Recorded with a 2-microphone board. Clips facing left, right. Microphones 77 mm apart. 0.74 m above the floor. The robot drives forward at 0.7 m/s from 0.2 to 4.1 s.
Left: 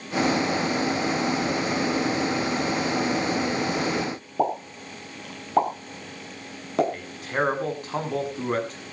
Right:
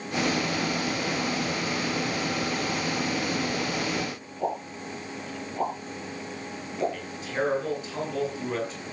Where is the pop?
85° left, 7 m.